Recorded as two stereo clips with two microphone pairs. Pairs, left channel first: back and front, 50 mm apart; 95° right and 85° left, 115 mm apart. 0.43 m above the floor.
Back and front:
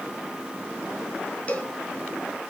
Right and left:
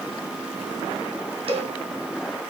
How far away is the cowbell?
About 2 m.